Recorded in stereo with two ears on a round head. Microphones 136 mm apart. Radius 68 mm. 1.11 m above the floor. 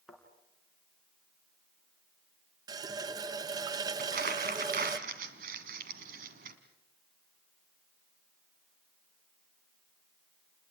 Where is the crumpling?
65° right (ahead or behind), 2 m.